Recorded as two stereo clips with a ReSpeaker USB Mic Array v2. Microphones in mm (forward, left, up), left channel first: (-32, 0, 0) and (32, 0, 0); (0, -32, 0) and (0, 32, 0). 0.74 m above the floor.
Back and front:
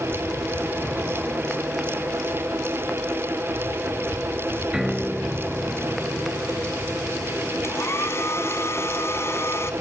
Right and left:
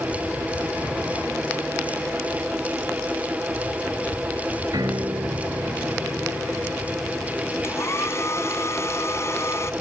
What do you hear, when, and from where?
4.7 s a piano: 85° left
7.6 s a hair dryer: 135° right